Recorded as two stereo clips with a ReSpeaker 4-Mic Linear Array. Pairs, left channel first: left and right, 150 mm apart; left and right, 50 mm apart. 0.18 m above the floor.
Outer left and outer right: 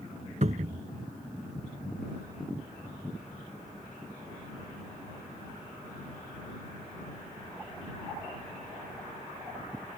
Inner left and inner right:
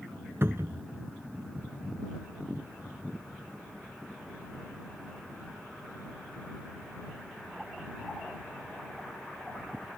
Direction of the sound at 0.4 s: 55° right (ahead or behind).